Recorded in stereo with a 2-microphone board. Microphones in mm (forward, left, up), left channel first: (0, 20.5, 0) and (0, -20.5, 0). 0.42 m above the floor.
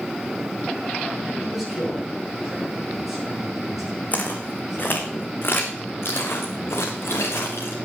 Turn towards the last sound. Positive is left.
turn(degrees=80)